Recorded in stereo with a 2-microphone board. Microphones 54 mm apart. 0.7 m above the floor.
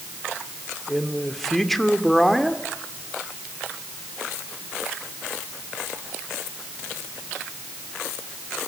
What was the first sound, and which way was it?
A man speaking, 5° left (ahead or behind).